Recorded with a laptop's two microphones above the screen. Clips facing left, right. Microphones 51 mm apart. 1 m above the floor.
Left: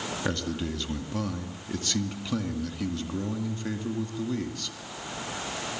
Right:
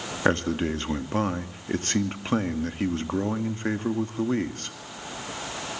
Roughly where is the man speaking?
Right.